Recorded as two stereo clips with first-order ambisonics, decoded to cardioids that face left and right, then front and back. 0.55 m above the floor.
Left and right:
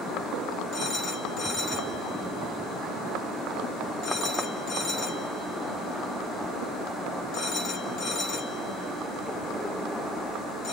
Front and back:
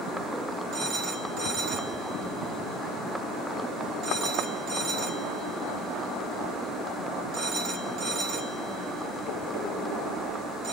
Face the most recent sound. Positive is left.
turn(degrees=135)